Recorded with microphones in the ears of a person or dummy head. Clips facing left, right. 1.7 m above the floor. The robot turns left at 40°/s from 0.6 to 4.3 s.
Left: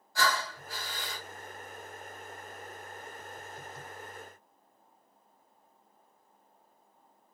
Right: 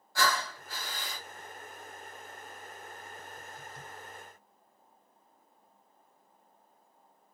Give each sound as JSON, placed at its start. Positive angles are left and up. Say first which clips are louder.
{"t": 0.1, "sound": "breathing", "louder": "even", "side_deg": -50, "distance_m": 1.3}